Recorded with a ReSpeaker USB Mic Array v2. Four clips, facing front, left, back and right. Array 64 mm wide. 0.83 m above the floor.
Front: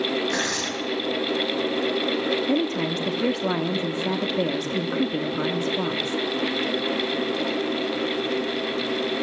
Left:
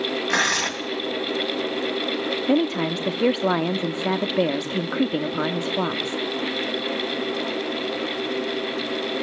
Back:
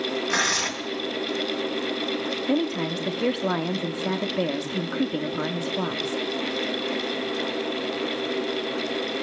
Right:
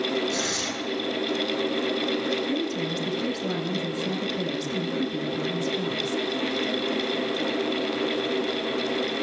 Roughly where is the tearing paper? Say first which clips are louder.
Left 7 dB, back 1 dB; left.